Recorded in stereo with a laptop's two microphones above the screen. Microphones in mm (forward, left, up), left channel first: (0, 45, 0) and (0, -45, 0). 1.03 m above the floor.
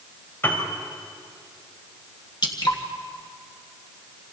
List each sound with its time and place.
0.4 s a piano: 25° left (ahead or behind), 4.5 m
2.4 s dripping: 50° left (ahead or behind), 1.9 m